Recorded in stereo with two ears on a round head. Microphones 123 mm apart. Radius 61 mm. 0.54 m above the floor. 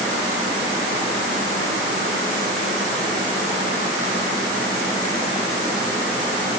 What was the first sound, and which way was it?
Only background noise.